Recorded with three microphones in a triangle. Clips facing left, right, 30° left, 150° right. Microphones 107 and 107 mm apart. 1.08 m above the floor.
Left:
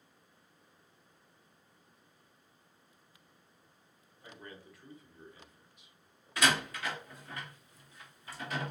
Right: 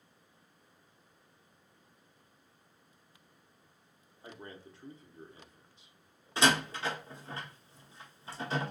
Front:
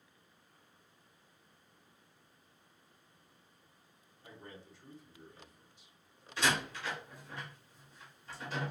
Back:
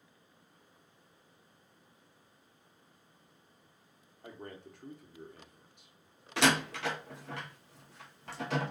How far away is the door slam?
About 0.7 m.